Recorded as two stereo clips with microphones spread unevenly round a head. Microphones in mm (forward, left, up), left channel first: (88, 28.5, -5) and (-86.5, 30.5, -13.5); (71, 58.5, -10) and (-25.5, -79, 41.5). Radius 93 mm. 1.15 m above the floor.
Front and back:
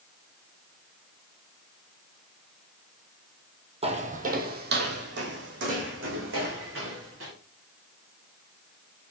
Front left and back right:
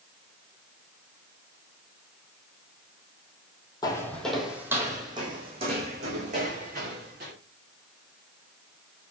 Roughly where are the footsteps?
Behind left.